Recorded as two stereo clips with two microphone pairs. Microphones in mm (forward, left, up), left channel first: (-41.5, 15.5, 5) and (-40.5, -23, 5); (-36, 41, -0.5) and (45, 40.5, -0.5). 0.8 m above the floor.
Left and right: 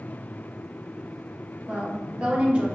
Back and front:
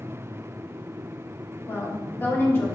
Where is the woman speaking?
135° right, 0.9 m.